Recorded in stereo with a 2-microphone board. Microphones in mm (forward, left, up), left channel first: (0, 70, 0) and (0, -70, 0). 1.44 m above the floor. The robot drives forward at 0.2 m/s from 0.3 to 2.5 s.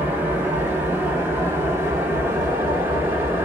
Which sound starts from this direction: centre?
An engine running, at 0.0 s.